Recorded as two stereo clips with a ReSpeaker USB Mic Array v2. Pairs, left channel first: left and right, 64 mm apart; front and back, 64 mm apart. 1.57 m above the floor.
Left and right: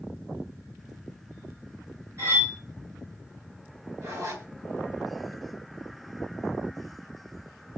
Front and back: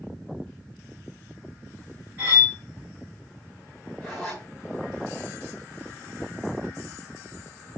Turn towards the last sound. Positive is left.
turn(degrees=-90)